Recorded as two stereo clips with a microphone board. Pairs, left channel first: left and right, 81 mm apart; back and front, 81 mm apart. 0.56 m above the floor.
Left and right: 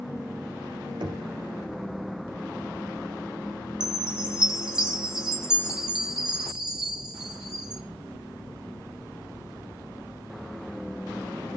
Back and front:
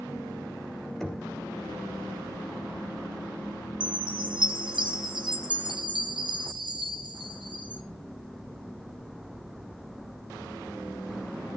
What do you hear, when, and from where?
1.0 s knocking: 95° right, 3 m
3.8 s a chime: 10° right, 1.7 m